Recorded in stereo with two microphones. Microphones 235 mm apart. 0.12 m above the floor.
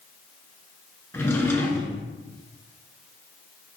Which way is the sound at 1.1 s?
10° left (ahead or behind).